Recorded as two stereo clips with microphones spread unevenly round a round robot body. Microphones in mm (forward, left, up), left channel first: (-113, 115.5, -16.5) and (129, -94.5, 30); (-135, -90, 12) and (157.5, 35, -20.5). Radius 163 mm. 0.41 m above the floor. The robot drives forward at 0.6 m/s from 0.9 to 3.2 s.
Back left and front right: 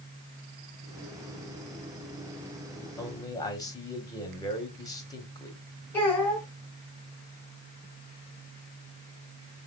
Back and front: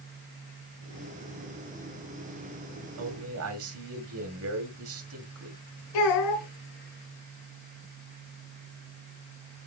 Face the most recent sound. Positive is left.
turn(degrees=-135)